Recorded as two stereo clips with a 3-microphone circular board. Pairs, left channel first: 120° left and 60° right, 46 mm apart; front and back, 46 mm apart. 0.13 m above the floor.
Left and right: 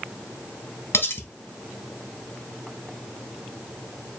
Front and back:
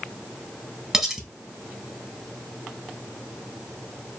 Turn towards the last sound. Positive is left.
turn(degrees=105)